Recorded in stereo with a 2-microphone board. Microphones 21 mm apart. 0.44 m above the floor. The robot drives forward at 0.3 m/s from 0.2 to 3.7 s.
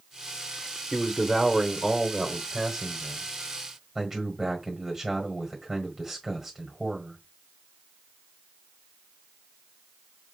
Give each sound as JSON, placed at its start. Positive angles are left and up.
{"t": 0.9, "sound": "a man speaking", "side_deg": 0, "distance_m": 1.0}